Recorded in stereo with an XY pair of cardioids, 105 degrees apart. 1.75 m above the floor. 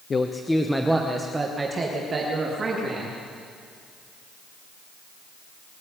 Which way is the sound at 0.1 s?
35° left.